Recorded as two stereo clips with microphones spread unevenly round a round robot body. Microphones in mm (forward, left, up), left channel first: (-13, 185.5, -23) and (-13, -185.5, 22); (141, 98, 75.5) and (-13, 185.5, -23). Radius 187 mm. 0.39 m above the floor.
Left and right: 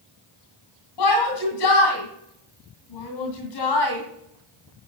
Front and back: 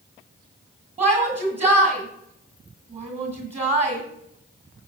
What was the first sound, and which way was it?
A shout, 115° left.